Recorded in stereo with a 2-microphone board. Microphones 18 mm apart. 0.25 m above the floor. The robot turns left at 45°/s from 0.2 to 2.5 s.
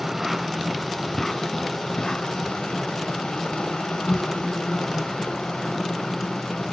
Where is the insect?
160° right, 2 m; by 6.7 s 95° left, 2 m.